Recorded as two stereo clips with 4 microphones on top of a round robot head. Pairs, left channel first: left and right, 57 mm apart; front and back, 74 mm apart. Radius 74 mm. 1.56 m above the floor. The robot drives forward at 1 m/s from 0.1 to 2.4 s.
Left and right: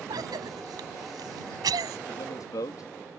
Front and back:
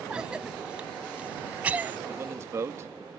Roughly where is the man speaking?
Behind left.